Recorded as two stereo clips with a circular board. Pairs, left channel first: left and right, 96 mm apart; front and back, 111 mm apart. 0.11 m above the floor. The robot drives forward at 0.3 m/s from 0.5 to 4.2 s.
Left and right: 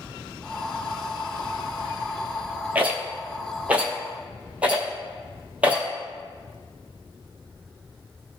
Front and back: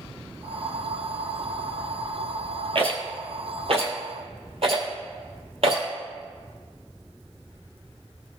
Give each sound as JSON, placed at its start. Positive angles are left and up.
{"t": 2.8, "sound": "a rattle", "azimuth_deg": -160, "distance_m": 1.7}